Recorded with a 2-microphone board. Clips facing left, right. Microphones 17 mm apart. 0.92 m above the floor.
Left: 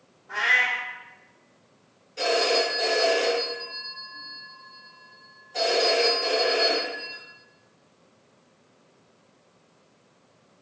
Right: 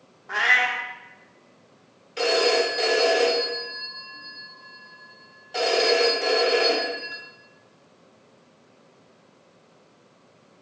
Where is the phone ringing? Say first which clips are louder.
Right 2 dB; 85° right, 1.2 m.